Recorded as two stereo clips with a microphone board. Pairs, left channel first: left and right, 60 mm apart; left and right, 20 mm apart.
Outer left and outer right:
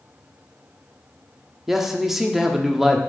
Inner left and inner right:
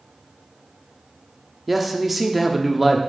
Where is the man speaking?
5° right (ahead or behind), 0.9 m.